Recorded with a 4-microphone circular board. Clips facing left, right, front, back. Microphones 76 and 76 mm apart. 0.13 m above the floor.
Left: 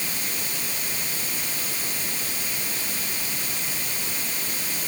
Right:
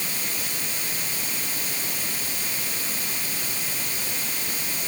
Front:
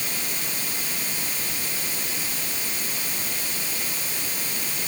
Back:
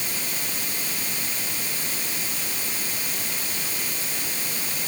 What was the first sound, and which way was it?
Only background noise.